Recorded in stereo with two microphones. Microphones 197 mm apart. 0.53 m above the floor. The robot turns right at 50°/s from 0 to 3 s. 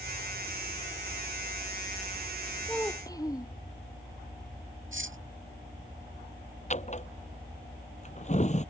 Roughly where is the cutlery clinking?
Right.